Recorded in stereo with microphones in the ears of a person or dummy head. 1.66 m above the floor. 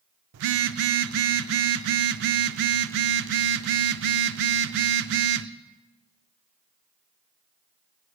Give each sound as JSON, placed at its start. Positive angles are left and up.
{"t": 0.3, "sound": "a phone buzzing", "side_deg": -60, "distance_m": 0.5}